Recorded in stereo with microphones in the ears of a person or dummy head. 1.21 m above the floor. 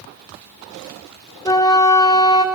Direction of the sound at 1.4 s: 15° left (ahead or behind).